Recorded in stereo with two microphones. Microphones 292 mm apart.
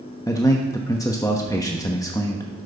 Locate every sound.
0.3 s a man speaking: 10° left (ahead or behind), 1.0 m